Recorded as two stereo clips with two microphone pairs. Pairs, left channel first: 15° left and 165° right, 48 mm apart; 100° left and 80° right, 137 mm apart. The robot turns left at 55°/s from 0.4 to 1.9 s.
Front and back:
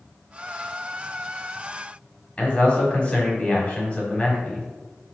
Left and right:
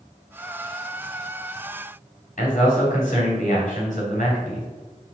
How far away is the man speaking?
About 3 m.